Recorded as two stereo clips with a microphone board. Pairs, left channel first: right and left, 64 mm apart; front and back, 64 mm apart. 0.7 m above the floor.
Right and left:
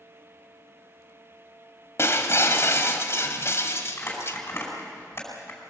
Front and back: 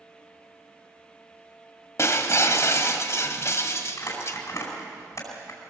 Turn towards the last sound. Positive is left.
turn(degrees=-40)